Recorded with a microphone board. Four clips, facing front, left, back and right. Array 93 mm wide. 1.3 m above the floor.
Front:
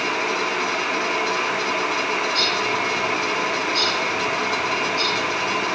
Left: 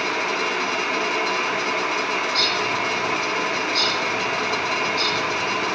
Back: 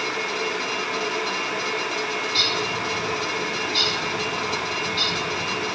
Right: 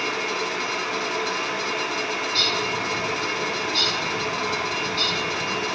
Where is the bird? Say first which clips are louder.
Left 3 dB, front 4 dB; 155° right, 6 m.